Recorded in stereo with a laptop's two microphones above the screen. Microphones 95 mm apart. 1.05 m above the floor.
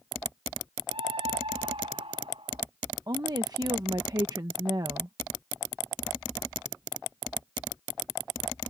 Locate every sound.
0.9 s a scream: 75° right (ahead or behind)
3.1 s a woman speaking: 40° right (ahead or behind)